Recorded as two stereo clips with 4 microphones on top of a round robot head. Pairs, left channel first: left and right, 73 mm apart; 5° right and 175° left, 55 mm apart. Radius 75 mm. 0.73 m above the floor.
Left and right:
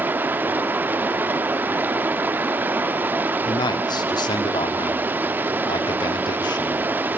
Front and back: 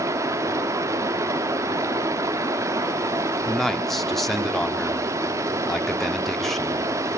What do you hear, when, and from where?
0.0 s running water: 155° right, 1.1 m
3.5 s a man speaking: 80° left, 1.7 m